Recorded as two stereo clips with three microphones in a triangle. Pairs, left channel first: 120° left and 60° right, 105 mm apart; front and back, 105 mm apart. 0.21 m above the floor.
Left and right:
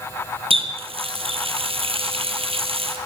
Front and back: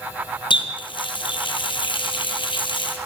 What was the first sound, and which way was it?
A running tap, 35° right.